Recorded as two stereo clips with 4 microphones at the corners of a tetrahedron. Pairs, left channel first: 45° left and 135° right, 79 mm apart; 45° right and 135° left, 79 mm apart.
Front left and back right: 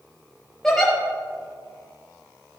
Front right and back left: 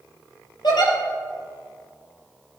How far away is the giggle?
About 4 m.